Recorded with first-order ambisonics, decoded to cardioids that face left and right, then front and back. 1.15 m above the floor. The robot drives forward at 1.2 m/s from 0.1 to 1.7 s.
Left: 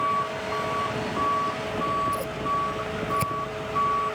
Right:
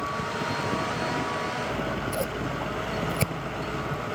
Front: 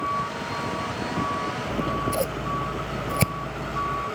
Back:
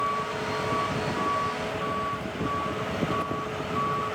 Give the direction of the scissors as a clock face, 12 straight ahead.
12 o'clock.